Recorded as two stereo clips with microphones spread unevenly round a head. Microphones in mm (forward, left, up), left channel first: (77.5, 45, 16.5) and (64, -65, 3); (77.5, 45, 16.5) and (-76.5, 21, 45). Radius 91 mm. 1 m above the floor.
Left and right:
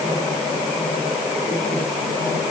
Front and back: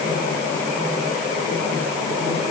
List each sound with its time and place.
Only background noise.